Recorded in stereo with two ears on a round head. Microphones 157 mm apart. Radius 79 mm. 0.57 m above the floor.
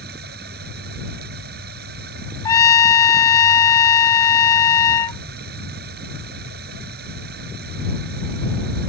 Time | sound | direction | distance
0.0 | running water | 60° right (ahead or behind) | ?
2.5 | a trumpet | 20° left (ahead or behind) | ?